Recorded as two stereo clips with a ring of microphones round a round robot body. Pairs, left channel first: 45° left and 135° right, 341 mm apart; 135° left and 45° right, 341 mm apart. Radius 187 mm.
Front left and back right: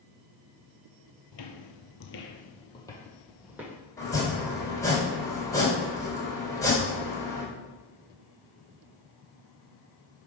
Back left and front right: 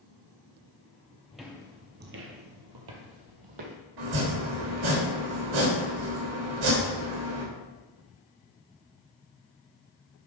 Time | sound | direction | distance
1.3 | footsteps | 45° left | 1.1 m
4.0 | chopping | 35° right | 3.5 m